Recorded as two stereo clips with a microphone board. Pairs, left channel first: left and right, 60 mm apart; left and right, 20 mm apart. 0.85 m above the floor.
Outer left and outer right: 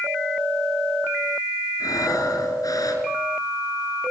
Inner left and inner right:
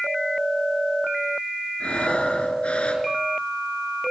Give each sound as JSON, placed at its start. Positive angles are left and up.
{"t": 1.8, "sound": "breathing", "side_deg": 85, "distance_m": 4.5}